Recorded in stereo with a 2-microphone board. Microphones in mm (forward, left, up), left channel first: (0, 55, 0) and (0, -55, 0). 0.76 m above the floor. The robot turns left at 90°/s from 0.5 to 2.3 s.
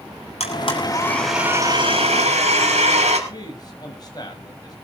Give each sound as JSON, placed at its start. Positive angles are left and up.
{"t": 0.4, "sound": "a blender", "azimuth_deg": 70, "distance_m": 6.5}
{"t": 3.3, "sound": "a man speaking", "side_deg": 40, "distance_m": 4.5}